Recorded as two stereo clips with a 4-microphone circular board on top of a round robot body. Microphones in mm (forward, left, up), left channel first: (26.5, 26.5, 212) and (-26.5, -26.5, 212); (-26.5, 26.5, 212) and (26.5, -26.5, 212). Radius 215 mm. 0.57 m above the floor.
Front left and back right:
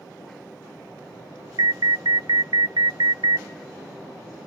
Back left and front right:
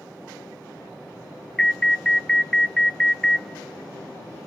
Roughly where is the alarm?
Behind right.